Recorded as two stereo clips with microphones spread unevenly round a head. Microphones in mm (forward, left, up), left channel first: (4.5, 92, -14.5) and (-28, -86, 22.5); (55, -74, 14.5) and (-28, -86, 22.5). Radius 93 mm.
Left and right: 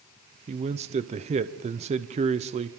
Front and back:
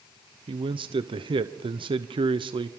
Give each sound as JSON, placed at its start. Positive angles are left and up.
{"t": 0.5, "sound": "a man speaking", "azimuth_deg": -155, "distance_m": 0.8}